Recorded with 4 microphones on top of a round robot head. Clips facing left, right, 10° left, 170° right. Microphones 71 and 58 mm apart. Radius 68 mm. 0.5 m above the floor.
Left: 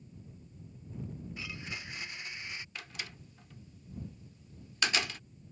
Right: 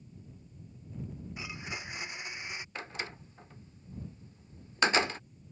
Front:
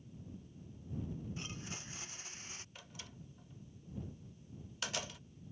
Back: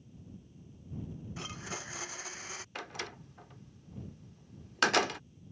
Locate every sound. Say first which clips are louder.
1.4 s a blender: right 4 dB, back 5 dB; 165° right
2.8 s a door slam: right 5 dB, back 12 dB; 150° right